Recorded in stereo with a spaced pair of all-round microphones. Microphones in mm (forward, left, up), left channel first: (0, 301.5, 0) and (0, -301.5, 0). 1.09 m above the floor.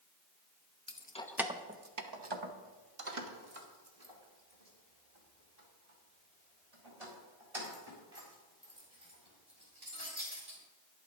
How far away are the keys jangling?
About 0.7 m.